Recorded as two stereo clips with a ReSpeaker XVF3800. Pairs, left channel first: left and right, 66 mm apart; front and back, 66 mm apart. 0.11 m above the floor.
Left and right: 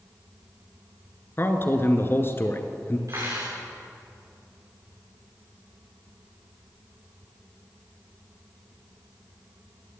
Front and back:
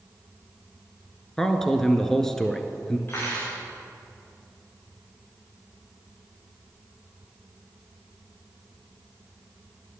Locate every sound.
1.4 s a man speaking: 80° left, 1.2 m
3.1 s cutlery clinking: 55° right, 6 m